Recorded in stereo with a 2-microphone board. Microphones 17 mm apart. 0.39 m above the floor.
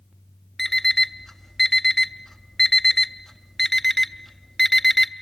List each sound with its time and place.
0.6 s an alarm clock: 5° left (ahead or behind), 0.6 m